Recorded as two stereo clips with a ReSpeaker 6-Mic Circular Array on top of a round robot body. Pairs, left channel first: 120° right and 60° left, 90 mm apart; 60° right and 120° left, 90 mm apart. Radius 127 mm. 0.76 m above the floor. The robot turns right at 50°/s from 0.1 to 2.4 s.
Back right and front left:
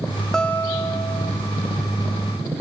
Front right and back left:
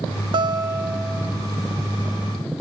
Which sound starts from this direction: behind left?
A guitar, at 0.3 s.